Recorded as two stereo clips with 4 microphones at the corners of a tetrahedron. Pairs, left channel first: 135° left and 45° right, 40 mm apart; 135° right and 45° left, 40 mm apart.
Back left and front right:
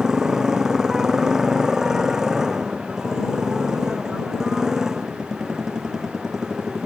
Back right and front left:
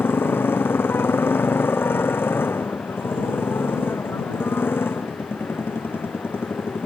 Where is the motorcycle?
120° right.